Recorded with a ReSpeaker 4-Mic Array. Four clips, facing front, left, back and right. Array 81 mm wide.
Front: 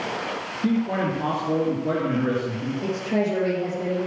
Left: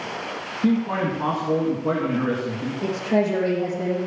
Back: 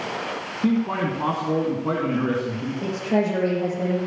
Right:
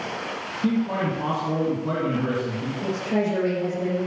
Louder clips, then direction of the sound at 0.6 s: Left 2 dB, back 1 dB; 150° left.